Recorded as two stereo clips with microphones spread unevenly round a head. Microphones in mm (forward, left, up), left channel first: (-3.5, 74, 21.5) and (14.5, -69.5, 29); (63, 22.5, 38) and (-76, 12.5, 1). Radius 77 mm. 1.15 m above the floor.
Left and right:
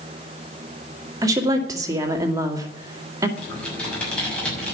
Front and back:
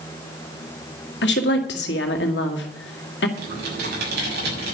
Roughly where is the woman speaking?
Ahead.